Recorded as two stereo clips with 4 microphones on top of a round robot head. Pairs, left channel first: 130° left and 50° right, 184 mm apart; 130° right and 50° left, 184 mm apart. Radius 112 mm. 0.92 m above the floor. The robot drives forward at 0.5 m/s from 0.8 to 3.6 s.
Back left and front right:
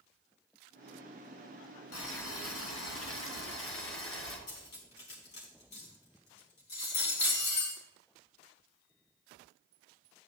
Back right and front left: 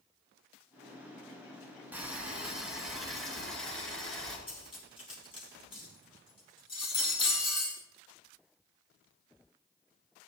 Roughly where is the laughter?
I don't hear laughter.